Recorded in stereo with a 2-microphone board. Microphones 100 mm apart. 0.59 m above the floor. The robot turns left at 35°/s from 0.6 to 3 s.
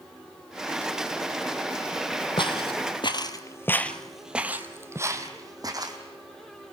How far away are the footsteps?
About 1.3 m.